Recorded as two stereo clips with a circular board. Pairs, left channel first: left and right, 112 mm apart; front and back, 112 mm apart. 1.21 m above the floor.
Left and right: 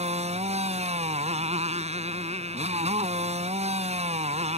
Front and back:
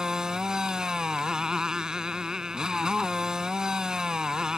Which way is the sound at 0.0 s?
95° right.